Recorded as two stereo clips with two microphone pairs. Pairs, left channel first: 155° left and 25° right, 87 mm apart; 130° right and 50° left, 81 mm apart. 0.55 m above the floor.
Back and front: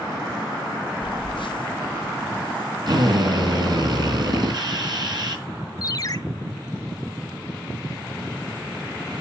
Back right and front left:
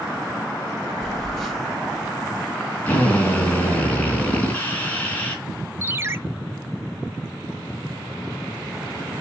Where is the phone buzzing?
140° left, 2 m.